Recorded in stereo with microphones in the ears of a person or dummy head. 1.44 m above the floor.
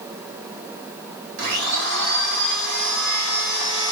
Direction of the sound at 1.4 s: 70° right (ahead or behind).